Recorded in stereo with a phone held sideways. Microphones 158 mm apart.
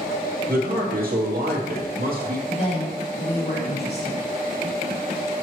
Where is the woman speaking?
75° left (ahead or behind), 2.5 m.